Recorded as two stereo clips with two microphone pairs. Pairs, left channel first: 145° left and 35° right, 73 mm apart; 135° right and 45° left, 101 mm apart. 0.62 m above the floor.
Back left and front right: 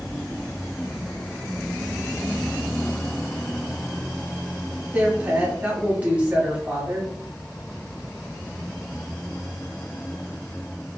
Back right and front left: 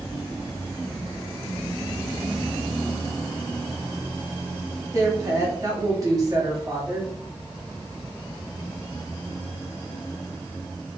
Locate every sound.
4.9 s a woman speaking: 25° left, 1.0 m